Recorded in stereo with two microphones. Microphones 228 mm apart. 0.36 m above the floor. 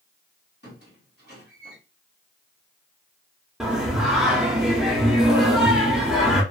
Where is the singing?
5° right (ahead or behind), 0.8 m.